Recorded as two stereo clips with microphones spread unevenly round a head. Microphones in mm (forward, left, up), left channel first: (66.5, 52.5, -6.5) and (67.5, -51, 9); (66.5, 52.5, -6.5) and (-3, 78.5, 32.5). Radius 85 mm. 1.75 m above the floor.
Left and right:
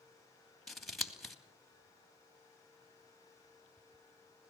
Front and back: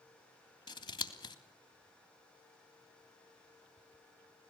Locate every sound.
0.7 s scissors: straight ahead, 3 m